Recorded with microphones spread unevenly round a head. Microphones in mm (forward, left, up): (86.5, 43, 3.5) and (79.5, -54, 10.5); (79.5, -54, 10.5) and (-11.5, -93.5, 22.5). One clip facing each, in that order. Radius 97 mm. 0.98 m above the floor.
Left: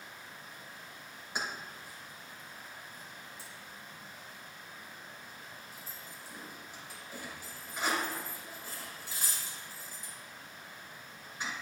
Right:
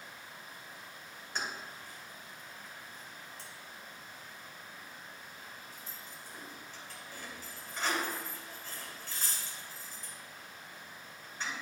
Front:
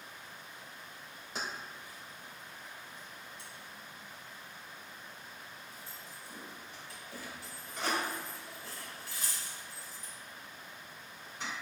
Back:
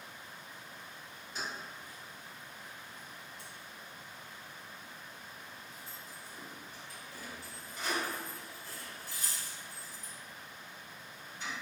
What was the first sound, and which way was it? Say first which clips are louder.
Keys jangling: left 1 dB, front 1 dB; 5° left.